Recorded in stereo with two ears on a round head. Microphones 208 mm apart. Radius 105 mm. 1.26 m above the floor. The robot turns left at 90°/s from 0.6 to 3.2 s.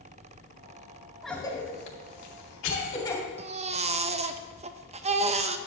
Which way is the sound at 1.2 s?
Centre (ahead or behind).